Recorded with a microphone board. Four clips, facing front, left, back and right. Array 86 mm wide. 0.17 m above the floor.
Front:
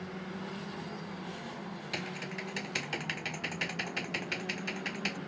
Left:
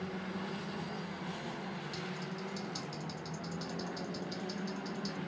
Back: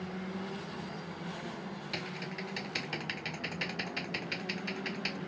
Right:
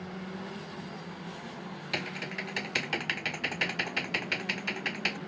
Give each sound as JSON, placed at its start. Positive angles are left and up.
{"t": 1.9, "sound": "typing on a keyboard", "azimuth_deg": -80}